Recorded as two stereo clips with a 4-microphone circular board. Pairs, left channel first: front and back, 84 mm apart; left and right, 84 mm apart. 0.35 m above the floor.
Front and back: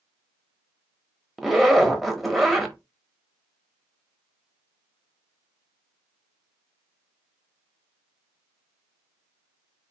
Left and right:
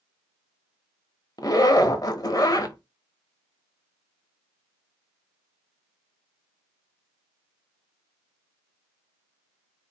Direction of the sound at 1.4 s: 90° left.